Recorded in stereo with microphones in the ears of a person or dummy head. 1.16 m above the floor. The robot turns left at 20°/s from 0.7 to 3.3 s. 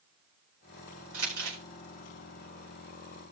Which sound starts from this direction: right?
Crumpling, at 1.1 s.